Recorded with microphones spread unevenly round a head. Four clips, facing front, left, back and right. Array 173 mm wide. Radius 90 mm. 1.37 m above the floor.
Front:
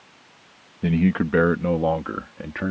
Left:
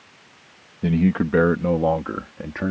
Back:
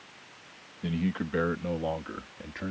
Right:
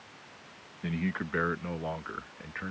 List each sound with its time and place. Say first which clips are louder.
0.8 s a man speaking: left 13 dB, front 10 dB; 45° left; by 2.7 s 55° left